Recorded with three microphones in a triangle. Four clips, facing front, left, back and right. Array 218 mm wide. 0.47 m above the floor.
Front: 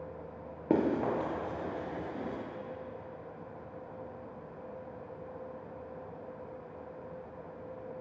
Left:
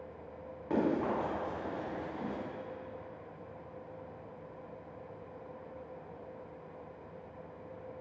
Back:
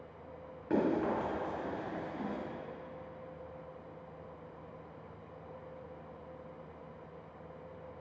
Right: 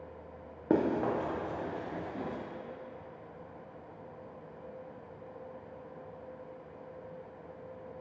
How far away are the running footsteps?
About 2.5 m.